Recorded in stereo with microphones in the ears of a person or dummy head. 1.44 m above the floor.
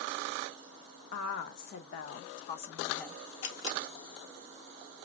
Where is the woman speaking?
70° left (ahead or behind), 1.3 m; by 3.2 s 5° left (ahead or behind), 0.5 m.